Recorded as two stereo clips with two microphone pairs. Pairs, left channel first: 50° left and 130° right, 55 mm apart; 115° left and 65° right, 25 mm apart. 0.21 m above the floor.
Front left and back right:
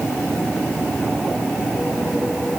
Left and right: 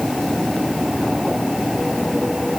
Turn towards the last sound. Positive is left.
No sound to turn to.